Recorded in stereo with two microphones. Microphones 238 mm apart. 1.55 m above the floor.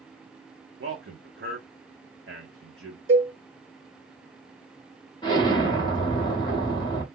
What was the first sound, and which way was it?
A man speaking, 55° right (ahead or behind).